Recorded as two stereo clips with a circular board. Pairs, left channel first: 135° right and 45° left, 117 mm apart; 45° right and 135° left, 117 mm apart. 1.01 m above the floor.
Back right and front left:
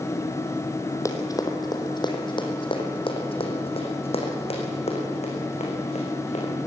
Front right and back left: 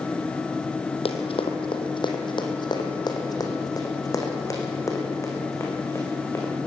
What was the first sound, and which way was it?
Running footsteps, 75° right.